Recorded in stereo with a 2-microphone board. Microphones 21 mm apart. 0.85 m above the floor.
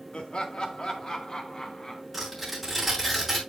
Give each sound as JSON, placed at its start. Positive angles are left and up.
{"t": 0.1, "sound": "laughter", "side_deg": 55, "distance_m": 1.7}
{"t": 2.1, "sound": "tearing paper", "side_deg": 0, "distance_m": 7.0}